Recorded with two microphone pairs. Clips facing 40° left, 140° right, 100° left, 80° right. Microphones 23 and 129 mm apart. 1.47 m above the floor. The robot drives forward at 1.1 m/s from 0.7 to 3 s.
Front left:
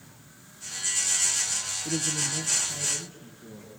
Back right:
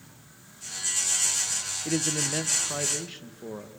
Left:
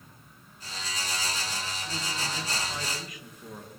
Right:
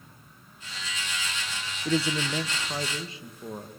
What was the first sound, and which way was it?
A man speaking, 75° right.